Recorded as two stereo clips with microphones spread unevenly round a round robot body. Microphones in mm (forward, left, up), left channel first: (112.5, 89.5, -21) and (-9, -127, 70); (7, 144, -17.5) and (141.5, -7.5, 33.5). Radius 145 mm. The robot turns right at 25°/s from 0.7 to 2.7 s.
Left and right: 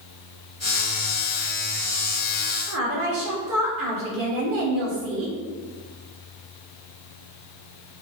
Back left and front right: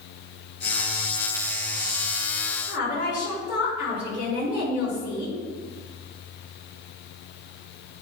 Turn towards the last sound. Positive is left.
turn(degrees=-150)